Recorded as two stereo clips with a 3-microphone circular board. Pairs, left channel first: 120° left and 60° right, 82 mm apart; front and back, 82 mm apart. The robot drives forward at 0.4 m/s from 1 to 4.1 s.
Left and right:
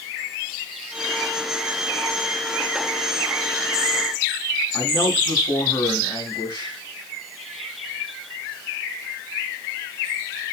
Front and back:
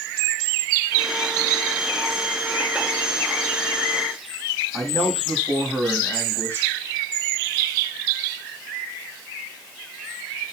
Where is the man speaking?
120° left, 3 m.